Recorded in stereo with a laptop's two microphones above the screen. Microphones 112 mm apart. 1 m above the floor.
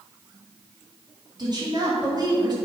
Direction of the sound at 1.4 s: 40° right (ahead or behind).